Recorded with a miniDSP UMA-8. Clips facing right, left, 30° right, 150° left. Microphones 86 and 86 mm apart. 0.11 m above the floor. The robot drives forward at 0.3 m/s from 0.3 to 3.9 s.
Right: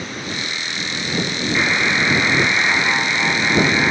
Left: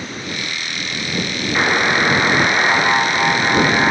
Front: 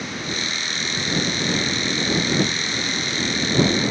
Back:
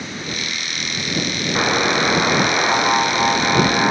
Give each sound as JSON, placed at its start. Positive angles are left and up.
{"t": 1.6, "sound": "a buzzer", "azimuth_deg": 150}